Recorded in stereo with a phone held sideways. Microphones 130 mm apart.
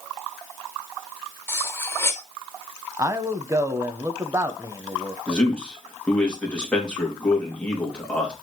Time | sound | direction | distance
1.5 | cutlery clinking | 20° left (ahead or behind) | 0.7 m
3.0 | a man speaking | 25° right (ahead or behind) | 0.8 m
5.3 | a man speaking | 10° left (ahead or behind) | 2.5 m